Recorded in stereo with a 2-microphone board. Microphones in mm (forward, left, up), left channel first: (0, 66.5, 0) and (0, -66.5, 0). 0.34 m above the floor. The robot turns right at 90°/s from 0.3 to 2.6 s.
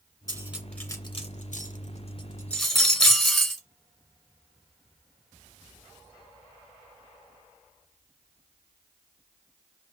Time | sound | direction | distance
0.3 | cutlery clinking | 30° right (ahead or behind) | 2 m